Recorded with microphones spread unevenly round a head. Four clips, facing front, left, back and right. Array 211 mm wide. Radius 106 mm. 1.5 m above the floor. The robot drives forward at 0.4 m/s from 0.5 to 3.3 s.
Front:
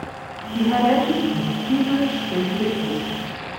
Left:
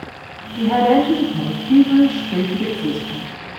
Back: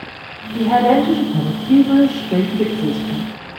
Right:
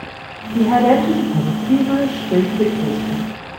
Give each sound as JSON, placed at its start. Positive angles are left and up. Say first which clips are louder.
{"t": 0.5, "sound": "a woman speaking", "louder": "right 1 dB, back 4 dB", "azimuth_deg": -120, "distance_m": 5.5}